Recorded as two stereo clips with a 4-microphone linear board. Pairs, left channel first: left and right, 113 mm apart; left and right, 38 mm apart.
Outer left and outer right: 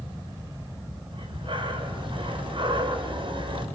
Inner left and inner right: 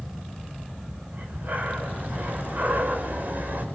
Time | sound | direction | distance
1.1 | breathing | 50° right (ahead or behind) | 5 m